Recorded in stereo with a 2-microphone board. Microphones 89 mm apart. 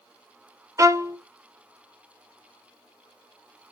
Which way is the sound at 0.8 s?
35° right (ahead or behind).